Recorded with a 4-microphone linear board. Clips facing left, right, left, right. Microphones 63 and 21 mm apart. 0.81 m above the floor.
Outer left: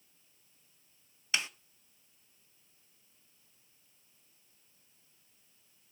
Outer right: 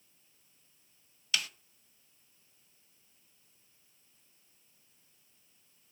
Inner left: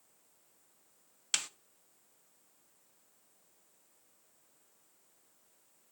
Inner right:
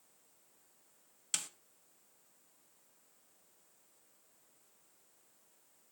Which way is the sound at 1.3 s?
25° left (ahead or behind).